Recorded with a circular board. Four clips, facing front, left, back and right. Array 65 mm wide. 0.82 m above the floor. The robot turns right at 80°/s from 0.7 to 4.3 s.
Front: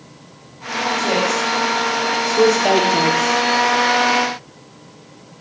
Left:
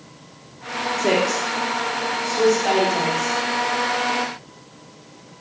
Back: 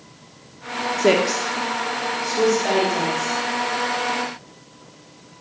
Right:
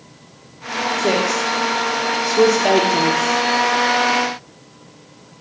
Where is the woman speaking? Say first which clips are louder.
Right 1 dB, back 3 dB; 165° left, 1.7 m; by 3.4 s straight ahead, 1.7 m.